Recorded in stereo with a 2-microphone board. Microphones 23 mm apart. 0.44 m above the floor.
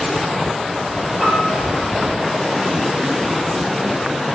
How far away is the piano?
About 7.5 m.